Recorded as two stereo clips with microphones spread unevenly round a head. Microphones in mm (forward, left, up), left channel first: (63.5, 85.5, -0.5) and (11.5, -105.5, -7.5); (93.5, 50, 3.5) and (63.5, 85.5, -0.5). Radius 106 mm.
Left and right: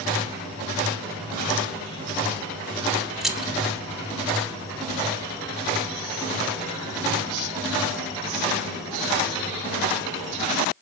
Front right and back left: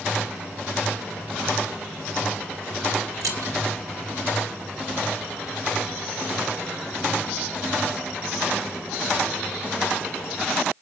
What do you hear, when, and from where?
3.2 s keys jangling: 165° left, 0.9 m